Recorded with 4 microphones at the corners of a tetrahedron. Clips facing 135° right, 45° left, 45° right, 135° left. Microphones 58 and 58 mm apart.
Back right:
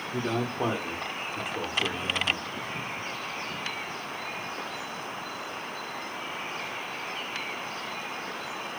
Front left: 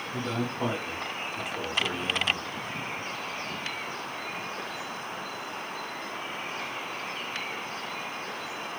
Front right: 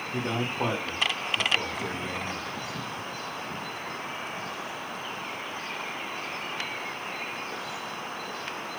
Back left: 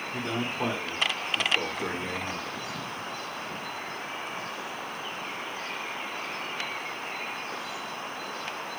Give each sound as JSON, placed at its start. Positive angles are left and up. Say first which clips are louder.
{"t": 0.1, "sound": "a man speaking", "louder": "back right 2 dB, front right 2 dB", "azimuth_deg": -110, "distance_m": 1.8}